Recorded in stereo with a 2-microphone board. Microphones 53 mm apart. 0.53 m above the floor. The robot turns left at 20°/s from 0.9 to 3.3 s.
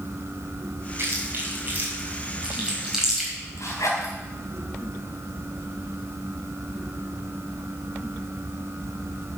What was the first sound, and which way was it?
Chewing, 45° right (ahead or behind).